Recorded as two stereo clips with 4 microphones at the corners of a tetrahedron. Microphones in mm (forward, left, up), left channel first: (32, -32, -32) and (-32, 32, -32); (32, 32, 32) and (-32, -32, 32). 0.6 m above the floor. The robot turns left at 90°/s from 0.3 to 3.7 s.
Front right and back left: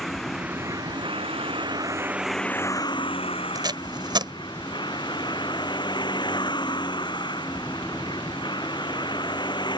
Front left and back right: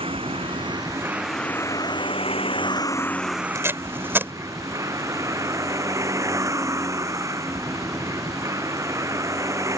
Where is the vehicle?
135° right; by 9.8 s 80° right.